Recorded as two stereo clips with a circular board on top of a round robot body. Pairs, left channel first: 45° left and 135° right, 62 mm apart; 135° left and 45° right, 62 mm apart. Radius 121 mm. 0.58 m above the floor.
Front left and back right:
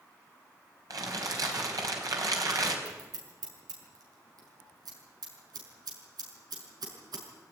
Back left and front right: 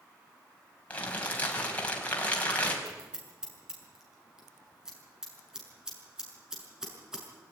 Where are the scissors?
125° right, 6 m.